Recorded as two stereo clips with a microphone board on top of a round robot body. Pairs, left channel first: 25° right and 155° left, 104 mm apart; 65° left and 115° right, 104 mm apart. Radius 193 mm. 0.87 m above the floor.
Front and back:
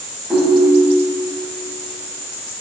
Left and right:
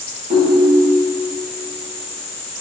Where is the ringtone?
120° right, 3.5 m.